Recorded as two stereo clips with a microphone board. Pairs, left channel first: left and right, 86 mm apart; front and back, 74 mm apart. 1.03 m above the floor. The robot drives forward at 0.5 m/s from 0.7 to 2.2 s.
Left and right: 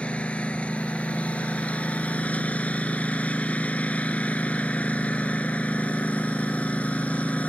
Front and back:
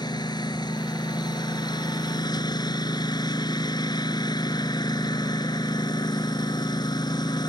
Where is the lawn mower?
15° left.